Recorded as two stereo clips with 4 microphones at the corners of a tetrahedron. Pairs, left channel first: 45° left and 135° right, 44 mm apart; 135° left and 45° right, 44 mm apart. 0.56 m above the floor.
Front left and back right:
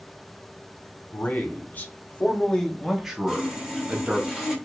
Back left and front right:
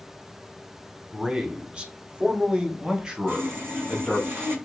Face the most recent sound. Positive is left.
turn(degrees=-50)